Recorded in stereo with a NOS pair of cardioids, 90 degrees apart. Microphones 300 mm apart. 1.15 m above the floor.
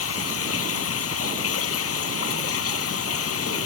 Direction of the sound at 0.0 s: 55° left.